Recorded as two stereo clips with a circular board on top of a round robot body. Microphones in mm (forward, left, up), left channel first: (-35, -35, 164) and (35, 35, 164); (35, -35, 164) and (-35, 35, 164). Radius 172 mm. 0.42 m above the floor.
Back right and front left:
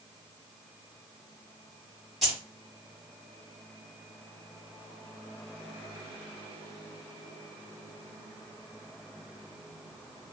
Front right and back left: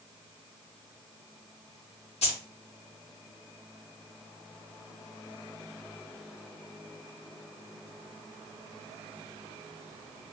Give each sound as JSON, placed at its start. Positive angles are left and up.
{"t": 2.2, "sound": "keys jangling", "azimuth_deg": -45, "distance_m": 2.5}